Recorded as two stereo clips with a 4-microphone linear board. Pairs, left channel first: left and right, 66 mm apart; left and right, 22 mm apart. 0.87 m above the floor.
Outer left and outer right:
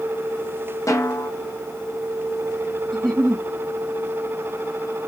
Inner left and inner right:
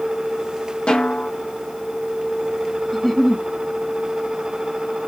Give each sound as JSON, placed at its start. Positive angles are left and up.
{"t": 0.9, "sound": "a snare drum", "side_deg": 55, "distance_m": 0.8}
{"t": 2.9, "sound": "a giggle", "side_deg": 10, "distance_m": 1.3}